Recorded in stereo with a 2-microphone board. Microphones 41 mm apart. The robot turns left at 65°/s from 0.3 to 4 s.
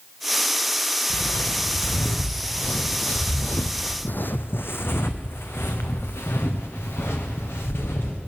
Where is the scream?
No scream in this recording.